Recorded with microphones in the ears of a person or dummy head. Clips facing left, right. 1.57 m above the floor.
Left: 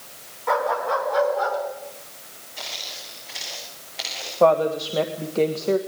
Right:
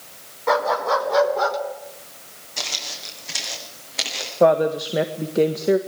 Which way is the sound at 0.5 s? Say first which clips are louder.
Right 3 dB; 55° right (ahead or behind).